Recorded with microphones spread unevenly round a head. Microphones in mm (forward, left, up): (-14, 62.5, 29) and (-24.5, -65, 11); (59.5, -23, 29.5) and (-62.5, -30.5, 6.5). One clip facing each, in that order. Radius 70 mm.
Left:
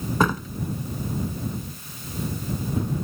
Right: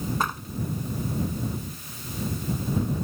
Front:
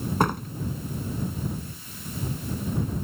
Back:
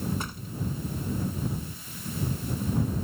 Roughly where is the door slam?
Ahead left.